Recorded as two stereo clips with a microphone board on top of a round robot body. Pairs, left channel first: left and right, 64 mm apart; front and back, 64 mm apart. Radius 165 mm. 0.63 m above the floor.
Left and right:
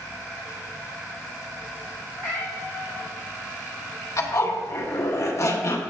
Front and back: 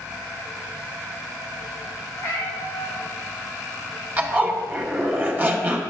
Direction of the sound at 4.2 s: 125° left.